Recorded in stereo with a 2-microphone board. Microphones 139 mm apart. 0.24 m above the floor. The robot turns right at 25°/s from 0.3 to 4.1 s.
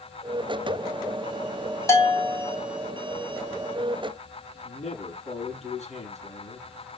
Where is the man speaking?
50° left (ahead or behind), 5.5 m.